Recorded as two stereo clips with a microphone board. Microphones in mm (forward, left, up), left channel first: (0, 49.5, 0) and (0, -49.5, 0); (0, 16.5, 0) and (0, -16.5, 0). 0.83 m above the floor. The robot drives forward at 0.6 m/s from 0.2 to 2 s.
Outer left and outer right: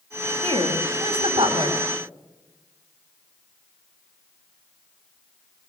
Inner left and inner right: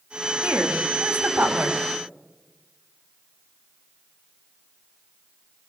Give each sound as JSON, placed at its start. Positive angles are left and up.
{"t": 0.4, "sound": "a woman speaking", "side_deg": -70, "distance_m": 5.0}